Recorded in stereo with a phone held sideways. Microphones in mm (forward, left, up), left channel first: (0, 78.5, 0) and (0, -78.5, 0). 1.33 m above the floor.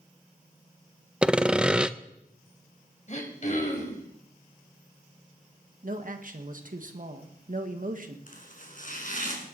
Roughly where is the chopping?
Left.